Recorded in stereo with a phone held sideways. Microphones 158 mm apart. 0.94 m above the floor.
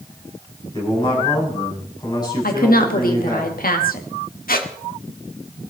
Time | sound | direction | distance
0.7 | a man speaking | 25° left (ahead or behind) | 6 m
2.4 | a woman speaking | 65° left (ahead or behind) | 1.9 m
4.5 | a squeak | 70° left (ahead or behind) | 1.3 m